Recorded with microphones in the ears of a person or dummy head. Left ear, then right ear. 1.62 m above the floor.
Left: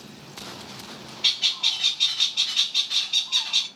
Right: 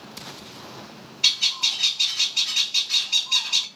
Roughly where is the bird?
Right.